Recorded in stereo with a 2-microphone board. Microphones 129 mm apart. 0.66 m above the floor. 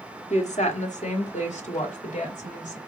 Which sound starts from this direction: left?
A woman speaking, at 0.3 s.